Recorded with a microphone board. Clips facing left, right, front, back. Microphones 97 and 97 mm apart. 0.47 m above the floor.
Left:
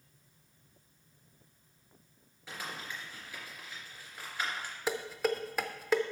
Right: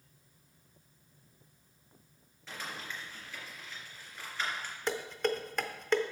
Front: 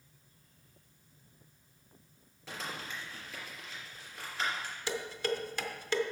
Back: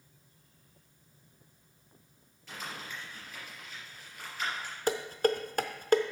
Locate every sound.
2.5 s crumpling: 15° left, 3 m
4.9 s dishes clattering: 170° left, 0.6 m